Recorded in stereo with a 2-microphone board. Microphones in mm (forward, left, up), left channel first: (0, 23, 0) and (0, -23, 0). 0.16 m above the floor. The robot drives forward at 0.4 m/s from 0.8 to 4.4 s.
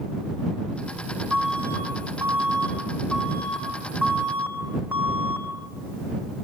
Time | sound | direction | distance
1.3 | an alarm | 40° right (ahead or behind) | 9 m